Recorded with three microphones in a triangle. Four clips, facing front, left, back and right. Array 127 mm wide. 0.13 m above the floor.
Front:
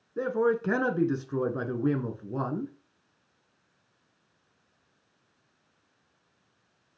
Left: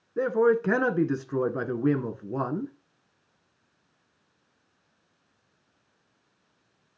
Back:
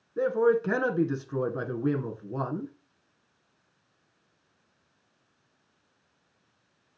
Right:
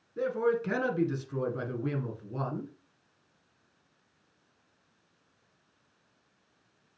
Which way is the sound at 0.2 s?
90° left.